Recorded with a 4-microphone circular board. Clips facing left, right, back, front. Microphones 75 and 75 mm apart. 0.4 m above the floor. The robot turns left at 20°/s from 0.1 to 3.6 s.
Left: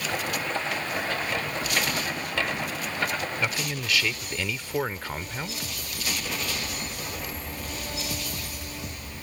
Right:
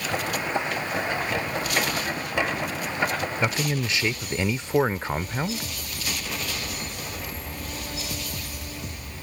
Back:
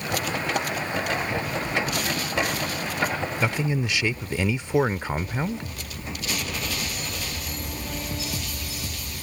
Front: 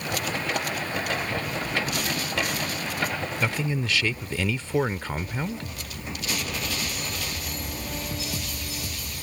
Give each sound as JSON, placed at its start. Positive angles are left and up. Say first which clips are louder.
{"t": 3.4, "sound": "a man speaking", "louder": "right 4 dB, back 2 dB", "azimuth_deg": -120}